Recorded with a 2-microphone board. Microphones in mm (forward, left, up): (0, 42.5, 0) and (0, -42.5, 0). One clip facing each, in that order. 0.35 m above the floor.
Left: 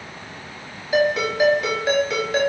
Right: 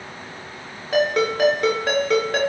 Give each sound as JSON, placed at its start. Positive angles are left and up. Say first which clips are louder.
{"t": 0.9, "sound": "a ringtone", "louder": "even", "side_deg": -60, "distance_m": 4.0}